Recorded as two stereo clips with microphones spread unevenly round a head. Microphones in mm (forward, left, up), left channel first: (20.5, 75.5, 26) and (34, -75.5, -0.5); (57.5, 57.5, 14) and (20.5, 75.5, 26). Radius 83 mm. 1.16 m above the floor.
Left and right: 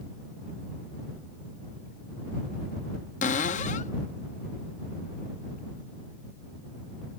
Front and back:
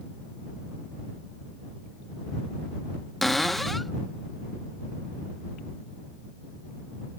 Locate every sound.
3.2 s a cupboard door: 75° left